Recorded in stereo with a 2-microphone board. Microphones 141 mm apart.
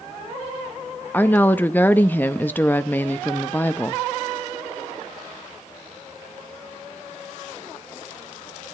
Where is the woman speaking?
15° left (ahead or behind), 0.5 m.